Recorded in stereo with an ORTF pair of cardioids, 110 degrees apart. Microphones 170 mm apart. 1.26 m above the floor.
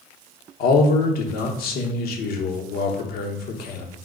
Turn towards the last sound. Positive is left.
turn(degrees=65)